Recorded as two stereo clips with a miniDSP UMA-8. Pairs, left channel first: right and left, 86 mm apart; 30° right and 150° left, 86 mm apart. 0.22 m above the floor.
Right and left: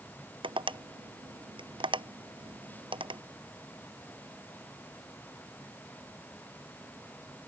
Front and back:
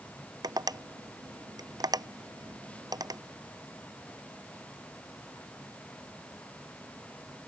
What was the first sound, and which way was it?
Tapping, 110° left.